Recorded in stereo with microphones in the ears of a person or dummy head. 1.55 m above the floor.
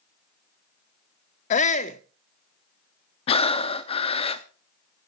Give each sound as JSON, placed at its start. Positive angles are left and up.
{"t": 1.5, "sound": "a shout", "side_deg": 40, "distance_m": 0.5}
{"t": 3.3, "sound": "breathing", "side_deg": 35, "distance_m": 0.5}